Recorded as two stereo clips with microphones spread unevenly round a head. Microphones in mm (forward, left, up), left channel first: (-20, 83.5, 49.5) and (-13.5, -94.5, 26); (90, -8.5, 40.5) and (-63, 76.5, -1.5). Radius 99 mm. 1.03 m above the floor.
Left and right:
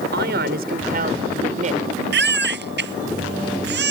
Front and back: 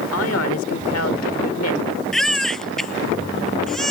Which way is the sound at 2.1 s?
115° right.